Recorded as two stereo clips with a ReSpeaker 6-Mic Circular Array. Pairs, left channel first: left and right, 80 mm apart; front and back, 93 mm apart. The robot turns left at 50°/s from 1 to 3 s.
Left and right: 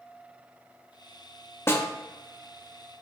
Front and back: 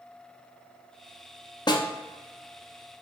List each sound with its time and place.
1.7 s a snare drum: 35° left, 0.6 m; by 1.9 s 25° left, 0.6 m